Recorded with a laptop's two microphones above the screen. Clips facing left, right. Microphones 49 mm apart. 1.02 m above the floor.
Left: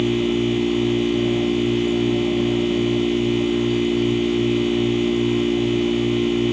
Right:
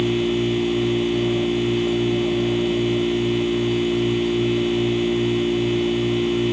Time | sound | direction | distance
0.0 | a machine running | 5° right (ahead or behind) | 1.9 m